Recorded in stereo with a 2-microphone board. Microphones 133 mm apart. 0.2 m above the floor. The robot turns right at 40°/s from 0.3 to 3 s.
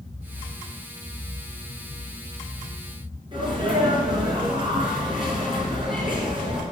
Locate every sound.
3.3 s a sneeze: 35° right (ahead or behind), 3 m